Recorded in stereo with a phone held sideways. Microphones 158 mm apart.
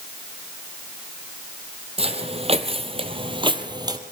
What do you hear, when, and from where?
2.0 s footsteps: 40° right (ahead or behind), 2 m; by 4.0 s 25° right (ahead or behind), 1.9 m